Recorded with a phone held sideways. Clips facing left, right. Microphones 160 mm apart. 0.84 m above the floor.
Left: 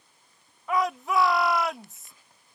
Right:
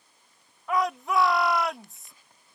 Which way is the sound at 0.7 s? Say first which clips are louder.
Even; centre (ahead or behind).